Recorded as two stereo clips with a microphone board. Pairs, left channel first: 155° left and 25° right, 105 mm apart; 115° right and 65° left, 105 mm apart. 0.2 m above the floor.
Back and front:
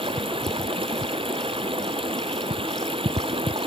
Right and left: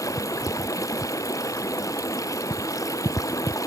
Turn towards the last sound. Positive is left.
turn(degrees=-55)